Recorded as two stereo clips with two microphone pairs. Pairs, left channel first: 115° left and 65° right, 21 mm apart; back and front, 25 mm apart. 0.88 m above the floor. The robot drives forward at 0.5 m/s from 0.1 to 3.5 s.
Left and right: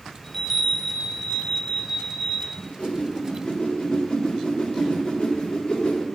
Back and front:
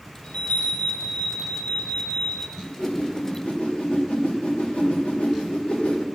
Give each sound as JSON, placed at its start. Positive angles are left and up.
{"t": 0.2, "sound": "a chime", "azimuth_deg": -165, "distance_m": 3.0}
{"t": 2.6, "sound": "a whoosh", "azimuth_deg": 155, "distance_m": 3.0}